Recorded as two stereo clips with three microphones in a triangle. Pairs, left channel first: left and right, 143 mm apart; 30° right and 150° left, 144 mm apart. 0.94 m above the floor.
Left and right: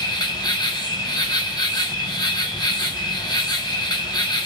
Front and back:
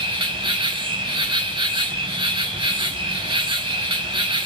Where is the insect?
130° left, 0.9 m.